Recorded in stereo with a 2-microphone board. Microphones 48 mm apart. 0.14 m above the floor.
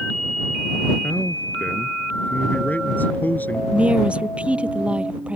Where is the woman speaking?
25° right (ahead or behind).